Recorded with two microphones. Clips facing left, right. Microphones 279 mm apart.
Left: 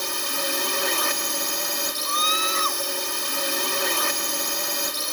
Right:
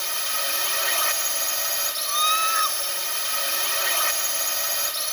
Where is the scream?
15° right (ahead or behind).